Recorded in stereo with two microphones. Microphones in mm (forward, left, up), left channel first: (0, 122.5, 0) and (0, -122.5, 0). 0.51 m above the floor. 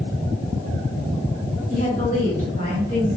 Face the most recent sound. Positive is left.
turn(degrees=30)  # may be behind; listen again after turning